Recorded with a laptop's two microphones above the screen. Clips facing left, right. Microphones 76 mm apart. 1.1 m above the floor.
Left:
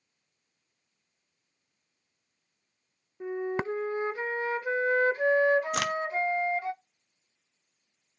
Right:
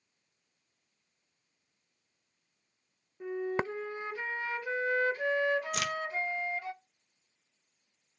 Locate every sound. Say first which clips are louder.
3.2 s a flute: left 2 dB; 30° left (ahead or behind), 1.1 m
5.7 s a crack: left 5 dB; 60° left (ahead or behind), 0.8 m